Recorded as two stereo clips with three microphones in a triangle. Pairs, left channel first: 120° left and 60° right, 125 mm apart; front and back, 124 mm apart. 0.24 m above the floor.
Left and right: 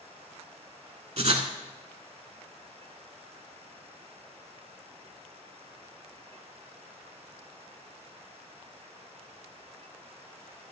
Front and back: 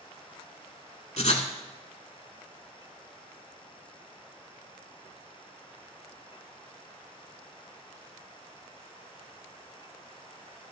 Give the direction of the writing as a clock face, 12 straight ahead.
1 o'clock.